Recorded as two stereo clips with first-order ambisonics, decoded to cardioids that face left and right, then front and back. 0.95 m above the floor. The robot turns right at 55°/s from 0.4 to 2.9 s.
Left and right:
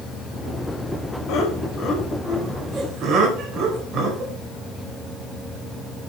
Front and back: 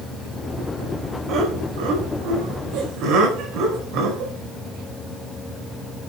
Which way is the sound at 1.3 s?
130° left.